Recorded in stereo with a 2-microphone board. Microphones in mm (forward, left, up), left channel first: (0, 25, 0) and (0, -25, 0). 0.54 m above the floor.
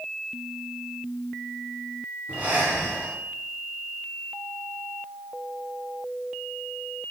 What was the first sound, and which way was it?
Breathing, 30° right (ahead or behind).